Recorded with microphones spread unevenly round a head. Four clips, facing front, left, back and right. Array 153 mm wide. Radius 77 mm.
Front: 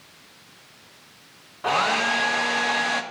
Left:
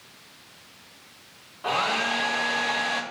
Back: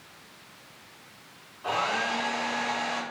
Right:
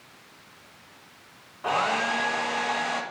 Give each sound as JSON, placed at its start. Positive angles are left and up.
{"t": 1.6, "sound": "a hair dryer", "azimuth_deg": 0, "distance_m": 1.2}